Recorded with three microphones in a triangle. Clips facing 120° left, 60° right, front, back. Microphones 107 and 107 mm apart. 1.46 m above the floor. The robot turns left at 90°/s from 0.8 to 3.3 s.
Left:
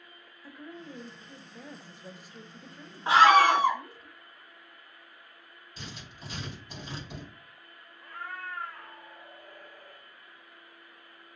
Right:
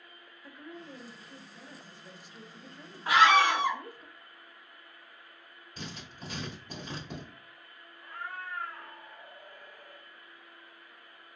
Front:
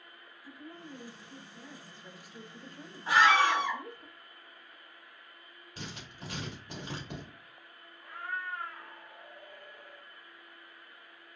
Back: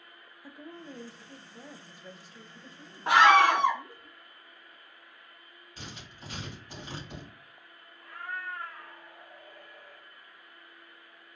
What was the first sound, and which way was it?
A woman speaking, 150° right.